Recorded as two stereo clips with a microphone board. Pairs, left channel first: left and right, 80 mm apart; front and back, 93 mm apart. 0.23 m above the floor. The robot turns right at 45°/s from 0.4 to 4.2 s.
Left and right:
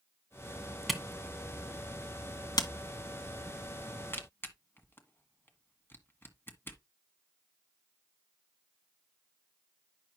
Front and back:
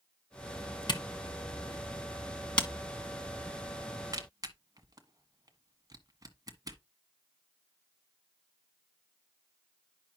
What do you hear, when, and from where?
0.9 s a camera shutter: straight ahead, 1.5 m; by 6.8 s 145° left, 1.5 m